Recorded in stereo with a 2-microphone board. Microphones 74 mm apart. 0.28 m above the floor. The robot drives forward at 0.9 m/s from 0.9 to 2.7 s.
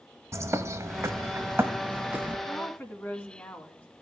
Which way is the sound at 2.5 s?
25° left (ahead or behind).